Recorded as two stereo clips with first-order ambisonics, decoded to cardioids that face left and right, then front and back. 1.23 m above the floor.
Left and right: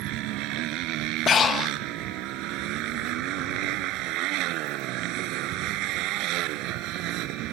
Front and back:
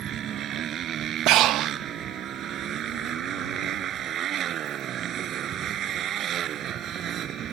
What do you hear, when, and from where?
0.0 s a motorcycle: 125° right
1.3 s breathing: 150° left